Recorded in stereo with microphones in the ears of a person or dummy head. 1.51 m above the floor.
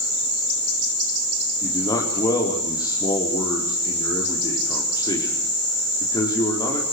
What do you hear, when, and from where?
1.6 s a man speaking: 25° left (ahead or behind), 4.5 m